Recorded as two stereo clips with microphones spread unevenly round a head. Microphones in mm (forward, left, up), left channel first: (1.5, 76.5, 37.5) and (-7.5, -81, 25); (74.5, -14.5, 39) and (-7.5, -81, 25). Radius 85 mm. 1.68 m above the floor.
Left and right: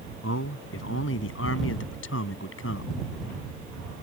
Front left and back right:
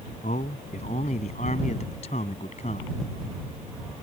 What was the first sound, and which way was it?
A man speaking, 85° left.